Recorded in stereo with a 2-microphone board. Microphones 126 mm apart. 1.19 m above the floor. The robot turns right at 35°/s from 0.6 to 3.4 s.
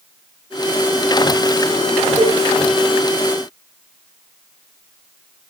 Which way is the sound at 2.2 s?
80° left.